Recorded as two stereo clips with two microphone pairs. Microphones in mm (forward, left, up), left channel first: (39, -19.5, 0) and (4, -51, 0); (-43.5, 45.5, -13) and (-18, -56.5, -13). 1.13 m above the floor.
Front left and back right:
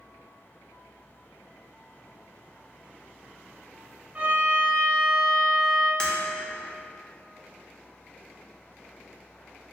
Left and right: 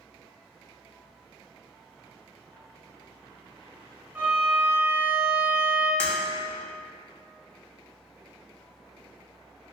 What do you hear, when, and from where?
4.2 s a violin: 140° right, 0.6 m
6.0 s breaking glass: 20° right, 0.6 m